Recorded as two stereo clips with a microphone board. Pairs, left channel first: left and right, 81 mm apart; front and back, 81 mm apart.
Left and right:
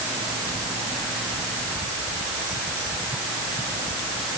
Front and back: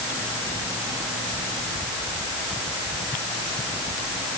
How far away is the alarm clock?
No alarm clock in this recording.